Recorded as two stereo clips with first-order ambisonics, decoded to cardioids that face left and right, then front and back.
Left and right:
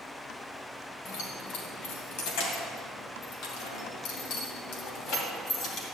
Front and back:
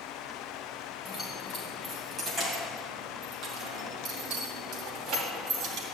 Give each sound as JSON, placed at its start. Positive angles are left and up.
{"t": 1.1, "sound": "keys jangling", "azimuth_deg": 85, "distance_m": 3.0}